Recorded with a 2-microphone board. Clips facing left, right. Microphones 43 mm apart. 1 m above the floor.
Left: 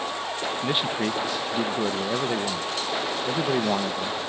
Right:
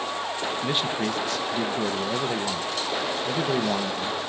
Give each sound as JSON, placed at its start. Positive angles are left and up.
{"t": 0.6, "sound": "a man speaking", "side_deg": 10, "distance_m": 0.8}